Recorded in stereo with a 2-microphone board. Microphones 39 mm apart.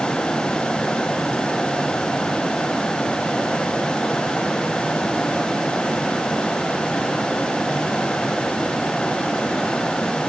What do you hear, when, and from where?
Only background noise.